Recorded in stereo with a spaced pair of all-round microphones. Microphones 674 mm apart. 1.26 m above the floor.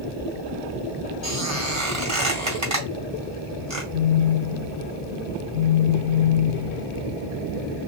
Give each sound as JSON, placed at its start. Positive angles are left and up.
{"t": 1.2, "sound": "a squeak", "side_deg": -25, "distance_m": 3.5}
{"t": 3.9, "sound": "a phone buzzing", "side_deg": 45, "distance_m": 1.1}